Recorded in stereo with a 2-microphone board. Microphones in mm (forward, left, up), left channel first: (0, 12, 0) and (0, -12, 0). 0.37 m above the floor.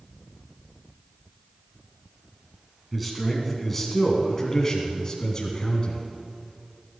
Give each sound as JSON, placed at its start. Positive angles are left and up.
{"t": 2.9, "sound": "a man speaking", "side_deg": 0, "distance_m": 4.0}